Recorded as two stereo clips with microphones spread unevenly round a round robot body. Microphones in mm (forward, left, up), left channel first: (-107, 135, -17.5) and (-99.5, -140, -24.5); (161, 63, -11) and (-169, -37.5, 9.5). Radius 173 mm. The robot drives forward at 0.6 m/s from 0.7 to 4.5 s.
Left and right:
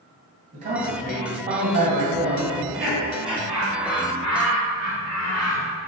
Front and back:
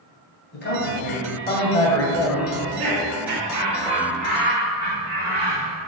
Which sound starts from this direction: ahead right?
A man speaking, at 0.5 s.